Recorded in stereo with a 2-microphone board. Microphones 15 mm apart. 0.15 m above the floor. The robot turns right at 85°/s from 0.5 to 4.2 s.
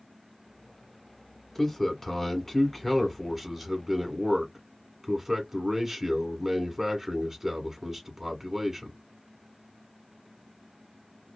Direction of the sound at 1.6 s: 10° left (ahead or behind).